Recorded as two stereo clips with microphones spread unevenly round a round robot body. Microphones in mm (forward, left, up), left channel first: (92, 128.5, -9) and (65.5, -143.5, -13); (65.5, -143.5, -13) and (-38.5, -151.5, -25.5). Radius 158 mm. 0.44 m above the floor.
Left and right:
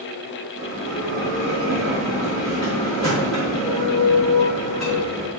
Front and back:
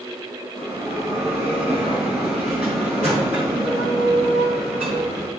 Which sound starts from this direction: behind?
A bell, at 0.6 s.